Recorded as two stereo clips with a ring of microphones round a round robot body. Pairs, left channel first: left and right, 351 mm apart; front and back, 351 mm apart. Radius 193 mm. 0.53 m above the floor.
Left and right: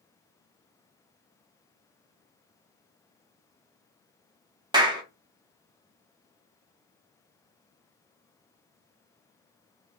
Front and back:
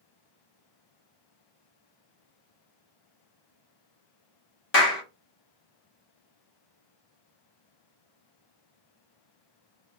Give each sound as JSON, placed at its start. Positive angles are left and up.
{"t": 4.7, "sound": "a clap", "azimuth_deg": -20, "distance_m": 0.9}